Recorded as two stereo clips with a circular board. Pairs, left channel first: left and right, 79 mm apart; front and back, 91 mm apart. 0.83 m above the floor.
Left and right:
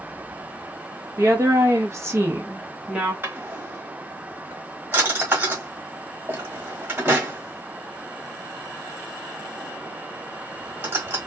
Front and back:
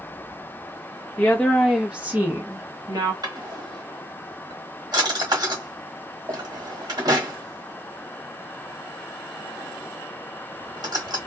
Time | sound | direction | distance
1.2 | a woman speaking | 70° right | 1.1 m
3.2 | a drawer | 145° right | 1.2 m